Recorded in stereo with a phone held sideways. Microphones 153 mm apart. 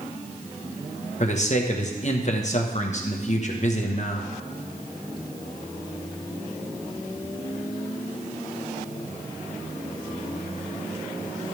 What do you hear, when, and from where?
1.2 s a man speaking: 50° left (ahead or behind), 1.3 m